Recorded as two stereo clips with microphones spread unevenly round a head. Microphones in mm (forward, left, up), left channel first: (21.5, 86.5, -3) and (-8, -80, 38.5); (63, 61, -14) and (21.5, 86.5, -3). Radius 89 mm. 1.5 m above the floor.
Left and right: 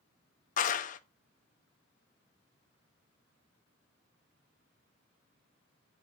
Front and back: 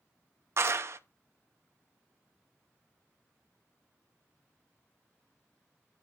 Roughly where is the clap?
Behind left.